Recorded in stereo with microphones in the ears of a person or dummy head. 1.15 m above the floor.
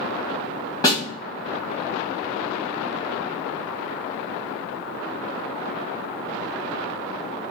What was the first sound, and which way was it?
A snare drum, 25° left (ahead or behind).